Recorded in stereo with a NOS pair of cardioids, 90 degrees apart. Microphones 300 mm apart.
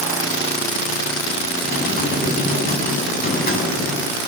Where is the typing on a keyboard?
30° left, 9.5 m.